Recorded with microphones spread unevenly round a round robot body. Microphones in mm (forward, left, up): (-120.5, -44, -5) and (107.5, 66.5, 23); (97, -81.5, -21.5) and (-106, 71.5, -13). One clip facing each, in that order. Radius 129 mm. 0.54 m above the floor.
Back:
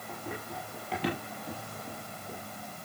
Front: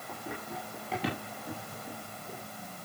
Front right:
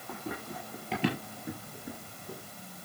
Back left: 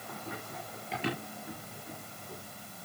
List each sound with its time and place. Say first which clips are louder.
0.1 s running footsteps: back 1 dB, front right 5 dB; 60° right, 8.5 m; by 2.4 s 55° right, 5.5 m